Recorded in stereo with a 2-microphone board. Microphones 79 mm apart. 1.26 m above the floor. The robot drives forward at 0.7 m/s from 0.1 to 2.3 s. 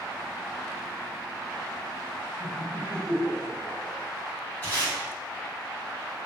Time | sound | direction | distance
2.4 | laughter | 10° right (ahead or behind) | 2.0 m
4.6 | tape being pulled | 20° left (ahead or behind) | 1.6 m